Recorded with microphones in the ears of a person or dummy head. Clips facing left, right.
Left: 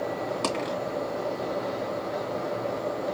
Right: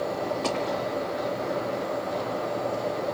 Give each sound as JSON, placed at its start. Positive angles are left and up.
{"t": 0.4, "sound": "a dropped coin", "side_deg": 60, "distance_m": 2.5}